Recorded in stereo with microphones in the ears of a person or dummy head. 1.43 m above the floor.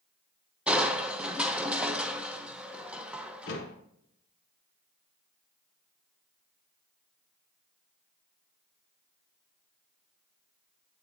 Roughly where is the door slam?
Left.